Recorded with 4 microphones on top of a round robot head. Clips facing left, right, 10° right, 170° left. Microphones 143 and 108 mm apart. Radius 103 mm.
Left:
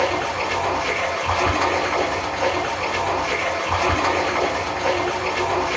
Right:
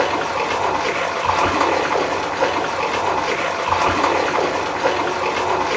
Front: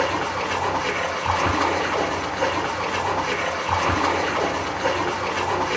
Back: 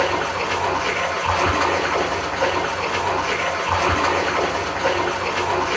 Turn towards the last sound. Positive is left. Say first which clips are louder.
# right 2 dB, back 2 dB
turn(degrees=-100)